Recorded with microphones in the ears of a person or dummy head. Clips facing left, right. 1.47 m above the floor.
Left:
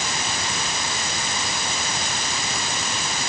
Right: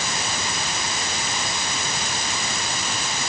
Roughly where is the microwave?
No microwave in this recording.